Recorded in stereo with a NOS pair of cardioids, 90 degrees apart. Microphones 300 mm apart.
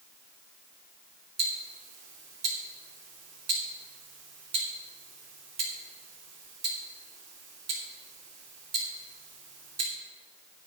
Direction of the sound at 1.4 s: 55° right.